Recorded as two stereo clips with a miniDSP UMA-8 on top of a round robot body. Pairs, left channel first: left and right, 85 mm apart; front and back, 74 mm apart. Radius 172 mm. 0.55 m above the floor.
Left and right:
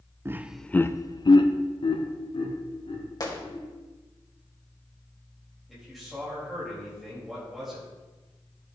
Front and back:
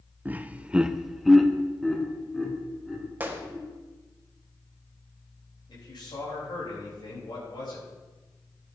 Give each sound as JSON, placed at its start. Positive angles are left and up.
{"t": 0.2, "sound": "laughter", "azimuth_deg": -125, "distance_m": 0.7}
{"t": 3.2, "sound": "a gunshot", "azimuth_deg": 115, "distance_m": 1.7}
{"t": 5.7, "sound": "a man speaking", "azimuth_deg": 0, "distance_m": 4.0}